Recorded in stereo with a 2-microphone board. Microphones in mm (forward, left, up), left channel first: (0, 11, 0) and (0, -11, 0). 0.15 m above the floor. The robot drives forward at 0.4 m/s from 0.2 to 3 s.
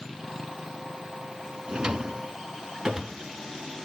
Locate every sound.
1.7 s a drawer: 35° right (ahead or behind), 0.6 m; by 3.2 s 25° right (ahead or behind), 0.9 m